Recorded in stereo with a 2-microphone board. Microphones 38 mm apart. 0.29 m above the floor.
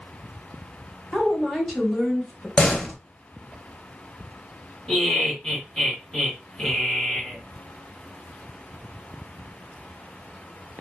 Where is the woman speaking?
Centre (ahead or behind), 1.7 m; by 2.5 s 20° left (ahead or behind), 1.2 m.